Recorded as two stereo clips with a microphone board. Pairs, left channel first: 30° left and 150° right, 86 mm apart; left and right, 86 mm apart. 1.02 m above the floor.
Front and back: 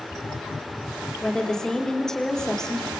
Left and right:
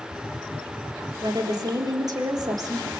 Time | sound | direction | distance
1.2 | a woman speaking | 50° right | 3.5 m